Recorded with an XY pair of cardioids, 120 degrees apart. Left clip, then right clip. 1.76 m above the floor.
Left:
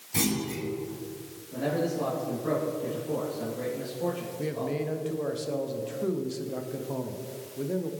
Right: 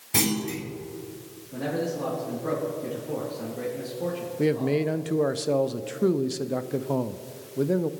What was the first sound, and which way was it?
A clunk, 55° right.